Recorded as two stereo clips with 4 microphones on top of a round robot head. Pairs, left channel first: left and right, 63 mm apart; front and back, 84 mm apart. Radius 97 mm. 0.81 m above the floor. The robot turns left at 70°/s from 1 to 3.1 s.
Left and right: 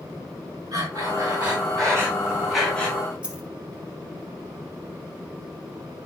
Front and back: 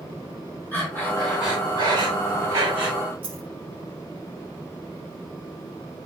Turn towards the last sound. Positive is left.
turn(degrees=-165)